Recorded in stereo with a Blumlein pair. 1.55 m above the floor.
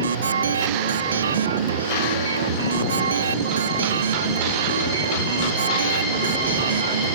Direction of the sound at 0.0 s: 70° right.